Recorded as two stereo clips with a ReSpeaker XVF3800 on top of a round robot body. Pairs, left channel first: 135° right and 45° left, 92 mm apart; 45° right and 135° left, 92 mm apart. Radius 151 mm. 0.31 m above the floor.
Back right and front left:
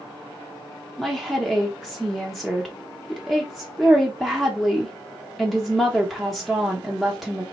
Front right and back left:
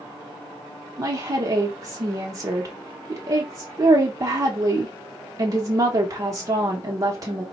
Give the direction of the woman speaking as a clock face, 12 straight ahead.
8 o'clock.